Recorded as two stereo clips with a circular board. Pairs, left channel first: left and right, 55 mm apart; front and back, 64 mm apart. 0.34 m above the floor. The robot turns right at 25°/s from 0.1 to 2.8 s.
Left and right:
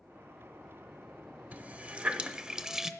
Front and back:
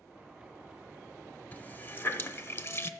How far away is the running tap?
About 0.7 m.